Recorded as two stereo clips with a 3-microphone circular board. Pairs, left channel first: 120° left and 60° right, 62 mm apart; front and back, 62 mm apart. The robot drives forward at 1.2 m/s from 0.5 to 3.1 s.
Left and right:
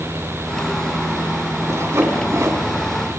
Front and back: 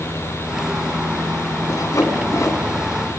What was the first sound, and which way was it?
Sawing, 20° right.